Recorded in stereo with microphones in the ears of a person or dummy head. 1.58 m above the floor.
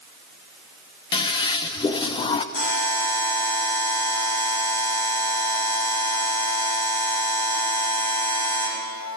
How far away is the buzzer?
About 2.5 m.